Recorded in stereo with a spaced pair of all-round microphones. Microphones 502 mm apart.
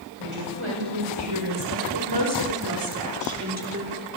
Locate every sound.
0.2 s a woman speaking: 70° right (ahead or behind), 6 m; by 3.9 s 25° right (ahead or behind), 4.5 m